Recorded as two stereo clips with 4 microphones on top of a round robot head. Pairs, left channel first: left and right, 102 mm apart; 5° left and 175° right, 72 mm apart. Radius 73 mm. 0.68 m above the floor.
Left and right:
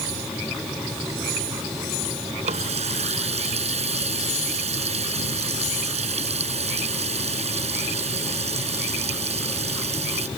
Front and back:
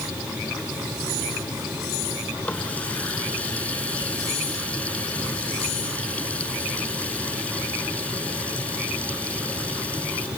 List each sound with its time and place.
2.4 s a running tap: 75° right